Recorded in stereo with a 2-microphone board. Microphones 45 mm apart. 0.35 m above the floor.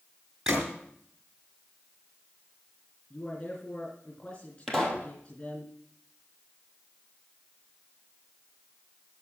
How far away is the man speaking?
About 4 m.